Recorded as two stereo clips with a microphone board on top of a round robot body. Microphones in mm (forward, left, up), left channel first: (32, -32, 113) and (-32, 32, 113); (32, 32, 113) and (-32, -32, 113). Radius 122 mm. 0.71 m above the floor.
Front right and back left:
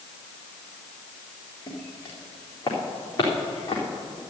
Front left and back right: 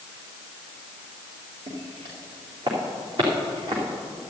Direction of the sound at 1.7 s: 105° right.